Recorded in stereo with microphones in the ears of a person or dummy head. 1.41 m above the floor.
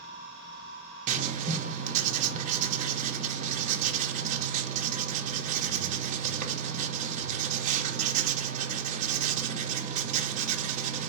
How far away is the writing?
About 0.9 m.